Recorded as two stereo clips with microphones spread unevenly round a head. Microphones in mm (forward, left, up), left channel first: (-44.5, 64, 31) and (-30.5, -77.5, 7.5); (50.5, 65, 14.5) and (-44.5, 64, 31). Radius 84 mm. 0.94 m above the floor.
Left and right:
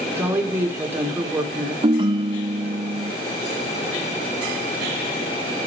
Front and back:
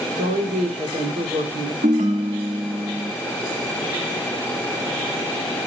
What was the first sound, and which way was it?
A woman speaking, 160° right.